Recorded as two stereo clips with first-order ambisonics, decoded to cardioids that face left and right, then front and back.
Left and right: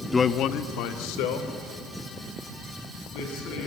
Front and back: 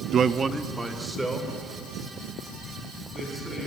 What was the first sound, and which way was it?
A man speaking, 160° left.